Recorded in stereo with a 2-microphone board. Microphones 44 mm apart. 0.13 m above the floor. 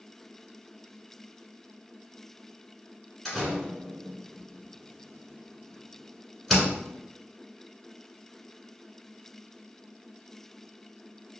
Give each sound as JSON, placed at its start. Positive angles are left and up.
{"t": 3.2, "sound": "a door slam", "side_deg": 5, "distance_m": 1.2}